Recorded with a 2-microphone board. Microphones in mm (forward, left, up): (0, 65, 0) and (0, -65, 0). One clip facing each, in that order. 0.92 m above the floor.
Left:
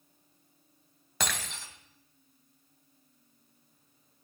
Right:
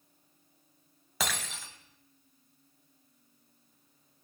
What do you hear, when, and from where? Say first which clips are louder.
1.2 s breaking glass: even; centre (ahead or behind), 2 m